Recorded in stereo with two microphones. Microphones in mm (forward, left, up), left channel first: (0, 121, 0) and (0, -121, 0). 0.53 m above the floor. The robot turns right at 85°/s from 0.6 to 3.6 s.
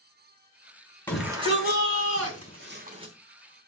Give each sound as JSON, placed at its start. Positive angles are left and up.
{"t": 1.1, "sound": "a shout", "azimuth_deg": 160, "distance_m": 2.5}